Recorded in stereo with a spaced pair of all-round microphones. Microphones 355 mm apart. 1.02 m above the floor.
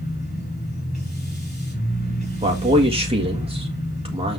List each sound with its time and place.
0.0 s a machine running: 25° left (ahead or behind), 5 m
2.4 s a man speaking: 15° right (ahead or behind), 1.6 m